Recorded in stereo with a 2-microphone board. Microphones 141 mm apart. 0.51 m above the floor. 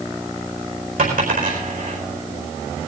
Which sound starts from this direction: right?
A dropped coin, at 1.0 s.